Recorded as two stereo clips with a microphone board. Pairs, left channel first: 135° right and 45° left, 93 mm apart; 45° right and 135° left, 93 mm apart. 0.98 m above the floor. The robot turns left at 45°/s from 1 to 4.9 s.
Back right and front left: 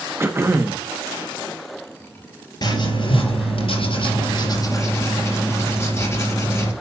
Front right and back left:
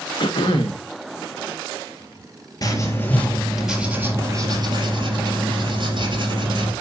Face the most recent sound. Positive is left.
turn(degrees=165)